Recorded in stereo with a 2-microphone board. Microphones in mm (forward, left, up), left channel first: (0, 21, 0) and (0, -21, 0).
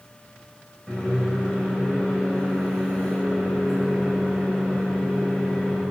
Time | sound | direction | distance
0.9 | a microwave | 5° left (ahead or behind) | 4 m